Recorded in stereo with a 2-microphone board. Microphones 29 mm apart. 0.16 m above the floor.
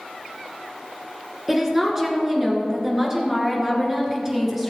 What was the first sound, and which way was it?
A woman speaking, 10° right (ahead or behind).